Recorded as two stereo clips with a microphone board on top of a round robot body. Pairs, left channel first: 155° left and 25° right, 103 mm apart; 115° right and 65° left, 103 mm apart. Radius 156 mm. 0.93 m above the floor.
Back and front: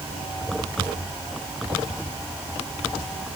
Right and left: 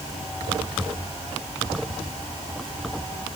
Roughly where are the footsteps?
I don't hear footsteps.